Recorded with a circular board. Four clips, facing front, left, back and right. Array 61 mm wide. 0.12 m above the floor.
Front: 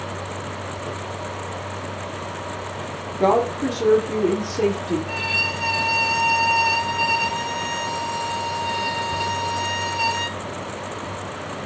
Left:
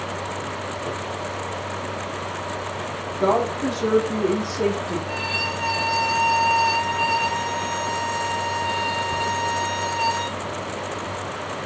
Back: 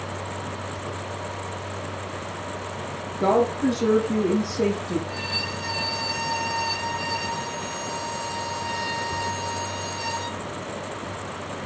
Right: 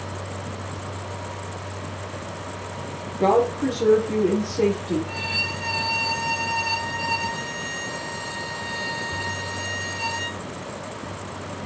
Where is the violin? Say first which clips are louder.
Left 3 dB, front 5 dB; 10° left, 1.2 m.